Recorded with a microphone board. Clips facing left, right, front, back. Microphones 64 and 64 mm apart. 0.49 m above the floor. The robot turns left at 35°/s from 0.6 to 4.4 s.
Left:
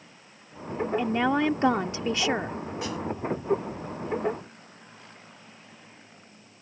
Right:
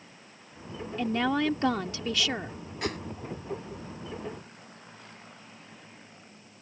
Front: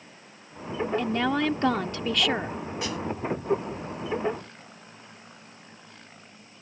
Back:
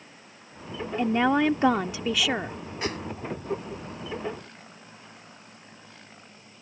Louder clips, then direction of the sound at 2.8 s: Right 2 dB, back 3 dB; 125° right.